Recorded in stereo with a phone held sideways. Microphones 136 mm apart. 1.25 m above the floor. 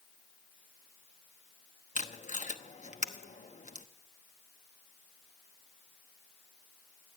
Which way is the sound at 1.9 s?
65° left (ahead or behind).